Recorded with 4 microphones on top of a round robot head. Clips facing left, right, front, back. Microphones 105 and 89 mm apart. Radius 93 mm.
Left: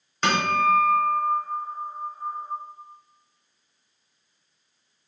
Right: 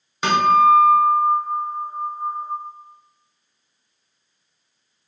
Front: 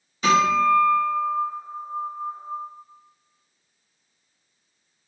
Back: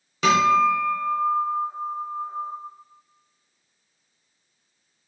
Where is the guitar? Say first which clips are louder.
Right 7 dB, back 1 dB; 170° right, 1.8 m.